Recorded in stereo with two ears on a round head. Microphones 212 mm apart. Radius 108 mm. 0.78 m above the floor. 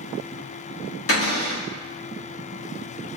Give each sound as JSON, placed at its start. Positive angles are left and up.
{"t": 1.1, "sound": "a cupboard door", "side_deg": 60, "distance_m": 1.6}